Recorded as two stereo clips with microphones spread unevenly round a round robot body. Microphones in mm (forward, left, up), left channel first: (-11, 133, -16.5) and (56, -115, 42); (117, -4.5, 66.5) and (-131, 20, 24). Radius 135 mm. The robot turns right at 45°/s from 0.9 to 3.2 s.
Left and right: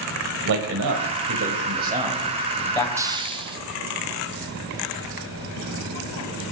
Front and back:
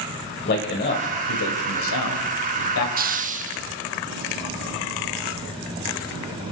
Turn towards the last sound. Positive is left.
turn(degrees=-155)